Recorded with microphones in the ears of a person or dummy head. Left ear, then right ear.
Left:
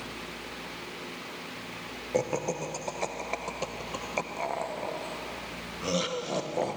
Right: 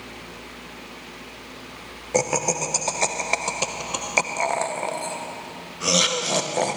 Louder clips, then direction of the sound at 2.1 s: Right 7 dB; 45° right (ahead or behind).